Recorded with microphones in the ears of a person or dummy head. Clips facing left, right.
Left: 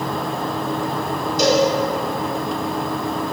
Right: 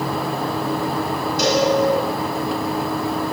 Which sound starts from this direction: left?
A cowbell, at 1.4 s.